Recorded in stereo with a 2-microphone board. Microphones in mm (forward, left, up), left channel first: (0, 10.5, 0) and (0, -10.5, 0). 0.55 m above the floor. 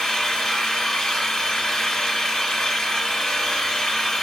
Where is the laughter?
No laughter in this recording.